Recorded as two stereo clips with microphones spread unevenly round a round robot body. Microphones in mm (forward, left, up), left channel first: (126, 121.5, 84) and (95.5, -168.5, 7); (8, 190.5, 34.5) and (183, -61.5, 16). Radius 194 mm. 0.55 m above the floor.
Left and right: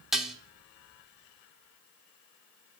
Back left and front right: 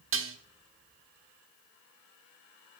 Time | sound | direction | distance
0.1 | dishes clattering | 15° right | 1.1 m